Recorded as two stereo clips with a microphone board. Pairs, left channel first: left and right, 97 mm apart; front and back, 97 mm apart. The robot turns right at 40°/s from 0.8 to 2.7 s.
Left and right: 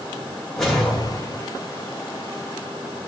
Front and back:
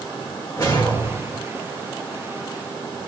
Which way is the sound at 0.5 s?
5° left.